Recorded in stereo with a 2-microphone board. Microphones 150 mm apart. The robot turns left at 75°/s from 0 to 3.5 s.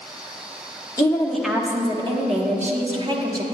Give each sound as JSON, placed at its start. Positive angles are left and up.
{"t": 1.0, "sound": "a woman speaking", "azimuth_deg": 30, "distance_m": 1.0}